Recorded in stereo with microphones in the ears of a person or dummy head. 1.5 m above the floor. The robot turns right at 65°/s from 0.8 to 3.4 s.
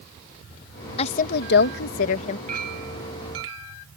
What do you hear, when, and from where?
1.0 s a woman speaking: 40° left; by 2.4 s 130° left
2.5 s a clink: 145° right; by 3.8 s 85° right